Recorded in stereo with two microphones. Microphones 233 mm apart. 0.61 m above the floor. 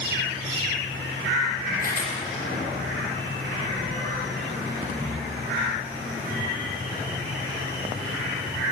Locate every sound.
1.8 s a camera shutter: 40° left (ahead or behind), 7 m